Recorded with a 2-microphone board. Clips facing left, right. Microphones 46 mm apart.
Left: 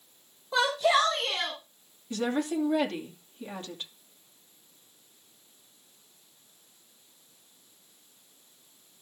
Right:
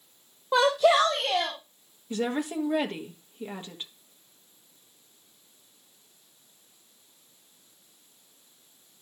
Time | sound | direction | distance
0.5 | a shout | 60° right (ahead or behind) | 3 m
2.1 | a woman speaking | 20° right (ahead or behind) | 2.5 m